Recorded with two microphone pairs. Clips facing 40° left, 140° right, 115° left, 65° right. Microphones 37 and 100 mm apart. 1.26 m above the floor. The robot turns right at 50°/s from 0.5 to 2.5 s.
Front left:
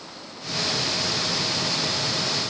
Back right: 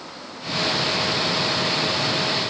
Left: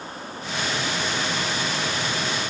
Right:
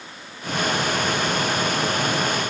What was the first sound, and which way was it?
Only background noise.